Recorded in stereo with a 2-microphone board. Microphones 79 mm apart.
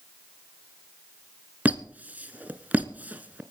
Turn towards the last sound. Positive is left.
turn(degrees=-20)  # may be behind; listen again after turning